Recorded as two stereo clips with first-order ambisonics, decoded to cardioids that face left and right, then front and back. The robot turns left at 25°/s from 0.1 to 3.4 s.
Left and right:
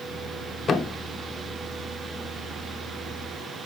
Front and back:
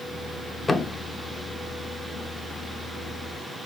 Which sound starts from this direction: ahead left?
A thud, at 0.7 s.